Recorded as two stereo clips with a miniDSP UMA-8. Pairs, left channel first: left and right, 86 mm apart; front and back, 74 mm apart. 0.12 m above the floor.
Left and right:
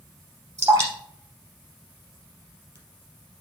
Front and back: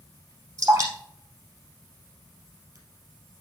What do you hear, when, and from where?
0.6 s dripping: 145° right, 2.5 m